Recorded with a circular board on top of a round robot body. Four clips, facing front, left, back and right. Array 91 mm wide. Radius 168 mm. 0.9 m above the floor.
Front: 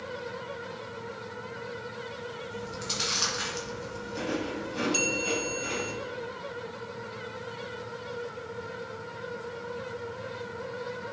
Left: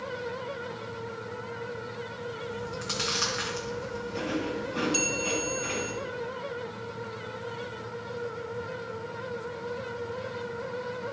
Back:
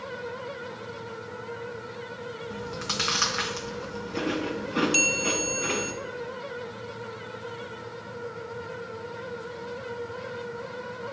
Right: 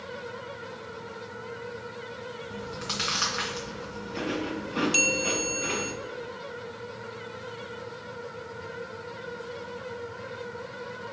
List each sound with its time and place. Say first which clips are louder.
2.5 s chewing: left 1 dB, back 3 dB; 165° right, 1.7 m
4.9 s a bell: right 1 dB, back 2 dB; 135° right, 1.4 m